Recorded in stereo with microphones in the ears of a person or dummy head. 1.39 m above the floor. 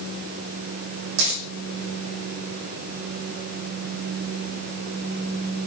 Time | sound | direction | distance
1.2 | a dropped coin | 80° right | 7 m